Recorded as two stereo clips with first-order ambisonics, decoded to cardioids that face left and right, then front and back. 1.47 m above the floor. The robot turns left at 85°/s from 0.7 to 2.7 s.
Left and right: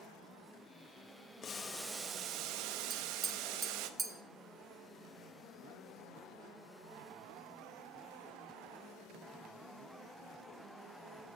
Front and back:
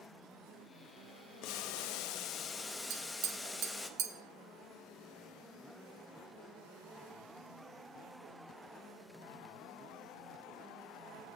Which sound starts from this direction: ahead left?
Boiling, at 1.4 s.